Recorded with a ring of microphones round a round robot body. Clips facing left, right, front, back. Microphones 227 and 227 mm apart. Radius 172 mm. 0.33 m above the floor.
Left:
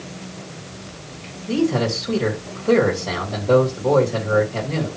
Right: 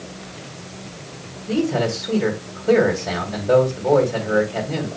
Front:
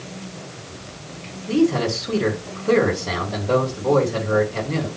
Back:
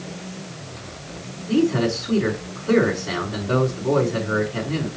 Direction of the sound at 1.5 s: Straight ahead.